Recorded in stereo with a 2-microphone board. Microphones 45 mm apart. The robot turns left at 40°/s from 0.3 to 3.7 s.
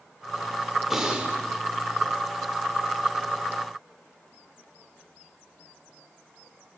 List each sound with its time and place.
0.9 s breathing: 5° right (ahead or behind), 1.0 m; by 1.3 s 25° right (ahead or behind), 1.0 m